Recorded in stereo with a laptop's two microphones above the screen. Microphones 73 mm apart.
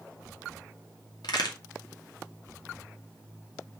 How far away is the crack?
About 2 m.